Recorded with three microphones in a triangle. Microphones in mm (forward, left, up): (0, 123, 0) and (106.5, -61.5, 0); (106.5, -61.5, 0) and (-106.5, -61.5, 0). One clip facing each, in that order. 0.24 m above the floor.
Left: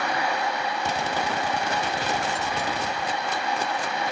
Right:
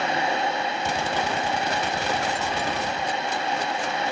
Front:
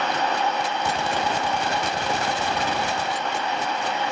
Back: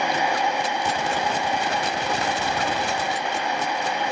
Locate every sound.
Only background noise.